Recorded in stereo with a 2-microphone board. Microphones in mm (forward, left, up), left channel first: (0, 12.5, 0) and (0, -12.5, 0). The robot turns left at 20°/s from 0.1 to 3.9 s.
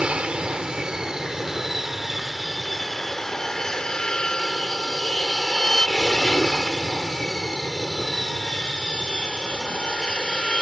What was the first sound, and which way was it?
An aircraft, 45° right (ahead or behind).